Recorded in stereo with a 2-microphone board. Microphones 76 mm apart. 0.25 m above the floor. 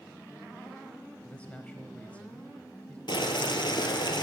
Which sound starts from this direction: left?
Boiling, at 3.1 s.